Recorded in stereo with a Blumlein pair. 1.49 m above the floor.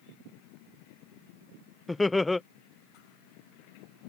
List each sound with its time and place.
1.9 s laughter: 5° left